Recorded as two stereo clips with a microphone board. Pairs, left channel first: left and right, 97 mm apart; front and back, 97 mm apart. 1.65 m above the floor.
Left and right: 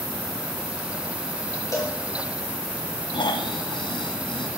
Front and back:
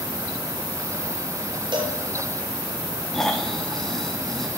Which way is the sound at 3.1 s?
85° left.